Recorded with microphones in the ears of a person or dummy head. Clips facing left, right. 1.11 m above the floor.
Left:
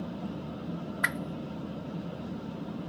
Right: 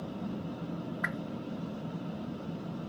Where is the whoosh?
50° left (ahead or behind).